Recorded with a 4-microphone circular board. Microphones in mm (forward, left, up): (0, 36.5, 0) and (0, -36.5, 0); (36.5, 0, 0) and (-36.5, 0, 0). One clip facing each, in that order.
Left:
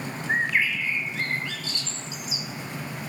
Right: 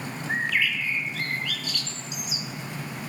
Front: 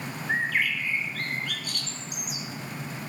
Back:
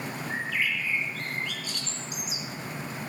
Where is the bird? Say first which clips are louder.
Left 2 dB, front 4 dB; 30° left, 2.5 m.